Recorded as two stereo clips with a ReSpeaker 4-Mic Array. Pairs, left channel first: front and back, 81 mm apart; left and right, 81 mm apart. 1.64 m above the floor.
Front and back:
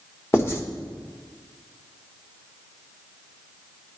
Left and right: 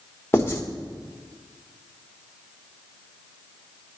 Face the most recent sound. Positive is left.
turn(degrees=40)